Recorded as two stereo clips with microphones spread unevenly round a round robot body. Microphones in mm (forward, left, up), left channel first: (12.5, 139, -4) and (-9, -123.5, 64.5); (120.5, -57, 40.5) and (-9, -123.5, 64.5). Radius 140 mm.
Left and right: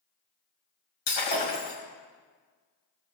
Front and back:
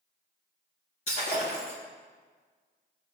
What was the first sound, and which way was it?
Breaking glass, 90° left.